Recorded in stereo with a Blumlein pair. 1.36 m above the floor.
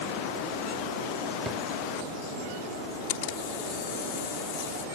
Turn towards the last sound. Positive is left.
turn(degrees=50)